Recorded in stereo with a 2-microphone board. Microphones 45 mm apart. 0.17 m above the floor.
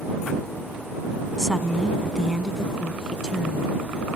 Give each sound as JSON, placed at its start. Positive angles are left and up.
{"t": 1.4, "sound": "a woman speaking", "side_deg": 15}